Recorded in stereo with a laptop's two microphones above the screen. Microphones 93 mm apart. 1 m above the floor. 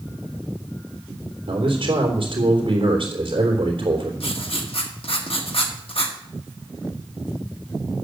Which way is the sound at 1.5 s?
70° right (ahead or behind).